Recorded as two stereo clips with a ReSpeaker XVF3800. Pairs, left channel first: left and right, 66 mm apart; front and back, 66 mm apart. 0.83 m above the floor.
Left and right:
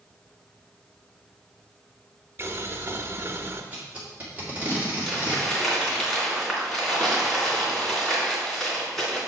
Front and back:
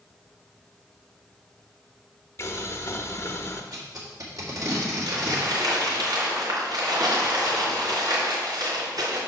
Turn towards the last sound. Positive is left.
turn(degrees=180)